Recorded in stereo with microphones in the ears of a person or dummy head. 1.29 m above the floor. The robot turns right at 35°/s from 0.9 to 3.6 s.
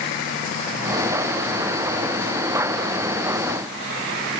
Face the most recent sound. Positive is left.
No sound to turn to.